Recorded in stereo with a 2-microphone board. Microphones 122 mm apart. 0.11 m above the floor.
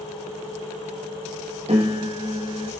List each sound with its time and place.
1.7 s a piano: 55° right (ahead or behind), 2.5 m